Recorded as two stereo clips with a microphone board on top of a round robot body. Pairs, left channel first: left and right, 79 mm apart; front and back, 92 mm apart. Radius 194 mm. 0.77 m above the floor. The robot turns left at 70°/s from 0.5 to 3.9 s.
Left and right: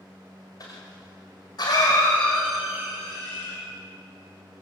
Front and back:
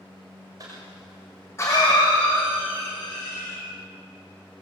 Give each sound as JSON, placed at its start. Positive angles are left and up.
{"t": 0.6, "sound": "a cough", "azimuth_deg": 130, "distance_m": 5.0}